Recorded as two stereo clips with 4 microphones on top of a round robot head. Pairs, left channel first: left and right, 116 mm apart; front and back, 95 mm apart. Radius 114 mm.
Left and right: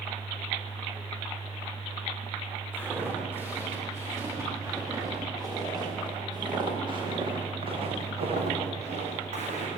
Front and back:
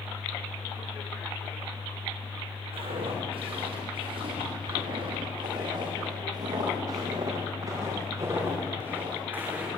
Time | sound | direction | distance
2.7 | footsteps | 165° right | 9.5 m